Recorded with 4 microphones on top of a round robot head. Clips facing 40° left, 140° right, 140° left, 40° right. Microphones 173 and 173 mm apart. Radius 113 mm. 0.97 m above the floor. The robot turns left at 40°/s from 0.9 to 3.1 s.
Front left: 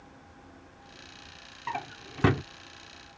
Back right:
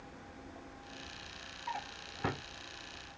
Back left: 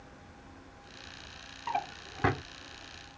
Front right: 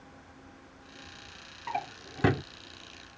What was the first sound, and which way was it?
A drawer, 45° left.